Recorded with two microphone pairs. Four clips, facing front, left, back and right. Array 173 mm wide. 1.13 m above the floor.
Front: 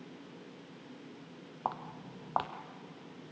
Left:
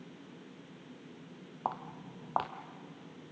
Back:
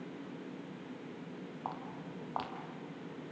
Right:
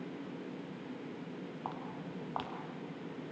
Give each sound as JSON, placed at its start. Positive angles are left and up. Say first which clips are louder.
{"t": 1.6, "sound": "footsteps", "louder": "left 7 dB, front 6 dB", "azimuth_deg": 55, "distance_m": 1.5}